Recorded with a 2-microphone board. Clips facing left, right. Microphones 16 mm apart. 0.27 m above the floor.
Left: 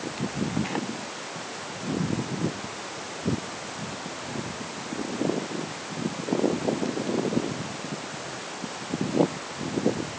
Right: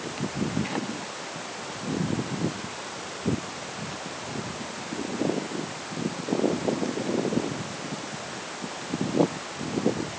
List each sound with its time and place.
Only background noise.